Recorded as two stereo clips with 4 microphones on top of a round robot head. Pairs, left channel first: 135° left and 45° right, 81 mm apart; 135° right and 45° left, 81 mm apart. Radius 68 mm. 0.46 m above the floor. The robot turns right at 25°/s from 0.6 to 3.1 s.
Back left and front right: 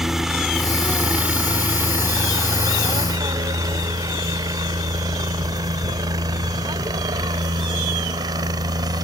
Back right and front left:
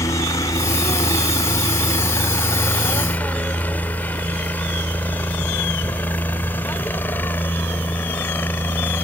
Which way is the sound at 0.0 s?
130° right.